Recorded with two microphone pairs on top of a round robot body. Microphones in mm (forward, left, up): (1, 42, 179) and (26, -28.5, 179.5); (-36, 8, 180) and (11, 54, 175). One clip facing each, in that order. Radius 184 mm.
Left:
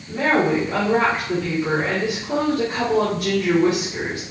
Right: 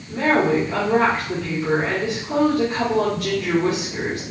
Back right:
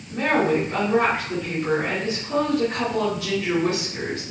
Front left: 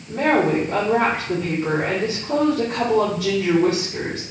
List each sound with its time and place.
0.1 s a woman speaking: 50° left, 2.5 m